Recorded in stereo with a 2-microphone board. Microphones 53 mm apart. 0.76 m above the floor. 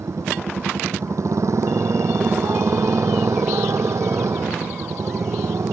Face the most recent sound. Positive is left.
turn(degrees=-70)  # may be behind; listen again after turning